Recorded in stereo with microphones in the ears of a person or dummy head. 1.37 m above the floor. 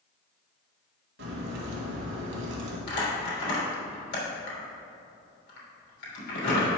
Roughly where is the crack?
Right.